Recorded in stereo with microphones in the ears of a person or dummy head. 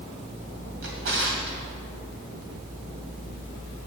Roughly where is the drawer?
Right.